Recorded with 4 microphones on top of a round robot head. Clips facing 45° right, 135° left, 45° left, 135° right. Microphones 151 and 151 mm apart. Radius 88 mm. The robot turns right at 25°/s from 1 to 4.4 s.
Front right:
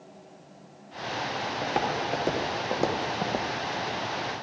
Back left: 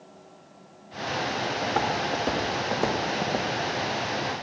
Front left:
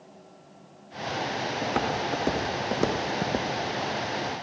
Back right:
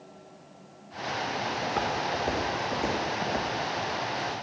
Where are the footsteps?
20° left, 2 m; by 3.5 s 40° left, 0.7 m.